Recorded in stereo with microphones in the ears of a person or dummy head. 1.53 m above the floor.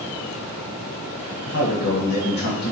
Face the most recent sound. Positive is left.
turn(degrees=85)